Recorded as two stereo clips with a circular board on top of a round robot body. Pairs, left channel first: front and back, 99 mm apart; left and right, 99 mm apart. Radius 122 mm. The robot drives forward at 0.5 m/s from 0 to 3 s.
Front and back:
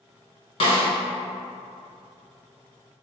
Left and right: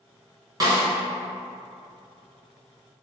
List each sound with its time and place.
0.6 s a snare drum: 35° right, 1.2 m; by 0.8 s 40° right, 1.1 m